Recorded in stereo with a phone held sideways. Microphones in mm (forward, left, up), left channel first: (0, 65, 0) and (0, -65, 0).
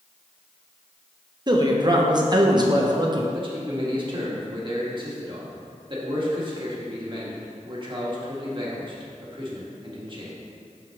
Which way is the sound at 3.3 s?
40° right (ahead or behind).